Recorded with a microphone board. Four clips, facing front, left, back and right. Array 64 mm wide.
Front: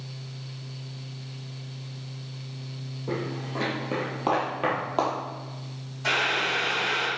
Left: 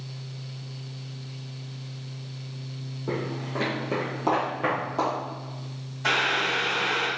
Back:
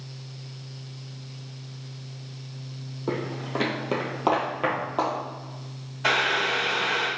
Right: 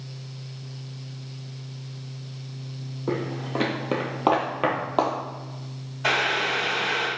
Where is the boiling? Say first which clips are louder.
Right 1 dB, back 2 dB; 140° right, 1.4 m.